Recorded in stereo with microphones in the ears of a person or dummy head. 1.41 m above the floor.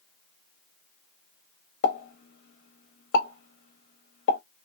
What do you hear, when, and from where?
1.8 s a pop: 70° left (ahead or behind), 1.0 m